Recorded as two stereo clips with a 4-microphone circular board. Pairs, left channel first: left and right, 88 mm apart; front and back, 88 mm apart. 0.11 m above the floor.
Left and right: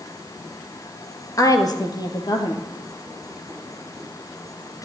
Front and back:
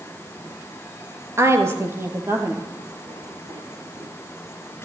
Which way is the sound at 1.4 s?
130° left.